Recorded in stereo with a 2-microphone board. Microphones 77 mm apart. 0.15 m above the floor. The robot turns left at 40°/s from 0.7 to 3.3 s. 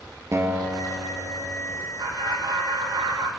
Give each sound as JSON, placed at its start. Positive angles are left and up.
{"t": 0.3, "sound": "a guitar", "azimuth_deg": -40, "distance_m": 2.5}
{"t": 2.0, "sound": "laughter", "azimuth_deg": -50, "distance_m": 4.0}